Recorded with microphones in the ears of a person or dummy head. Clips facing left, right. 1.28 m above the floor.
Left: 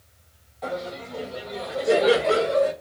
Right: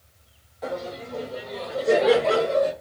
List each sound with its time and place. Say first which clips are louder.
0.6 s laughter: even; 10° right (ahead or behind), 1.4 m; by 2.7 s centre (ahead or behind), 2.5 m